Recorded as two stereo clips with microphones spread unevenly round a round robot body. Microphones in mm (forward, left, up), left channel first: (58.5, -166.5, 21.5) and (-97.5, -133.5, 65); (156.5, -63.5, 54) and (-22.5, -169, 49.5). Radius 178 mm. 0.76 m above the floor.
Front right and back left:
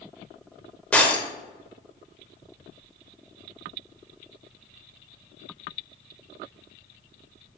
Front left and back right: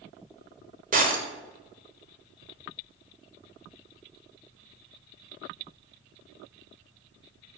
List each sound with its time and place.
0.9 s breaking glass: 100° right, 1.3 m